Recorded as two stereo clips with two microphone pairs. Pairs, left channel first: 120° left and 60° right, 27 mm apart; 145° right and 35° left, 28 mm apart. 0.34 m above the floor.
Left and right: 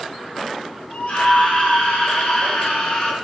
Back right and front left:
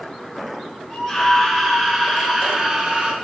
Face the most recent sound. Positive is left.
turn(degrees=90)